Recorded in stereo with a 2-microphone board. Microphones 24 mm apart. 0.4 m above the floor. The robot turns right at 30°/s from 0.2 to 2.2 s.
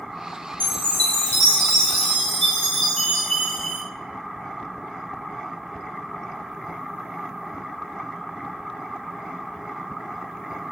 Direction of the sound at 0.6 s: 70° left.